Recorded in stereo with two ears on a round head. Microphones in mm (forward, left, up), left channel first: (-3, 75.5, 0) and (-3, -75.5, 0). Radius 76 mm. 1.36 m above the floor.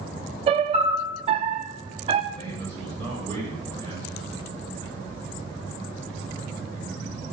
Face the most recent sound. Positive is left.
turn(degrees=10)  # may be behind; listen again after turning